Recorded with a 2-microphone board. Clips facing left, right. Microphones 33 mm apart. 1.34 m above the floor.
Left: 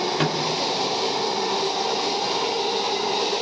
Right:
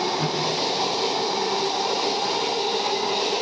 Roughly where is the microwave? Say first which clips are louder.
Left 2 dB; left.